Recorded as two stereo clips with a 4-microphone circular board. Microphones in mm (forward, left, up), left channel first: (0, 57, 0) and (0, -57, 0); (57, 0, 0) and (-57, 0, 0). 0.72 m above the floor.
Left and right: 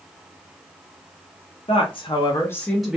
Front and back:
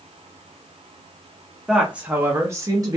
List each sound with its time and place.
1.7 s a woman speaking: 100° left, 0.9 m; by 3.0 s 160° right, 0.6 m